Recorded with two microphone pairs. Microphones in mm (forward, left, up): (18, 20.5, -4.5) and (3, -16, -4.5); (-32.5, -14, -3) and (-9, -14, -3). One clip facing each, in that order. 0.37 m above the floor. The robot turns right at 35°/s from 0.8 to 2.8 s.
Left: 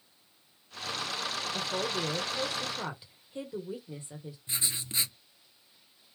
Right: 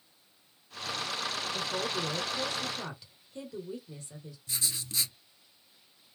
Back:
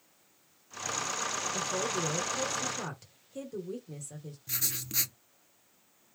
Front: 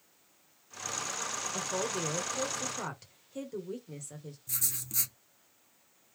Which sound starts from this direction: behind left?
Writing, at 4.5 s.